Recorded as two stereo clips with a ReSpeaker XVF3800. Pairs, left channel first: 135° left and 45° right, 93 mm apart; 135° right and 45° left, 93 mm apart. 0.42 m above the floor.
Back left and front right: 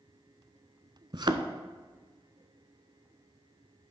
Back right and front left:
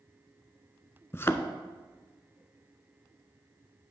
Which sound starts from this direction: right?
A thud, at 1.1 s.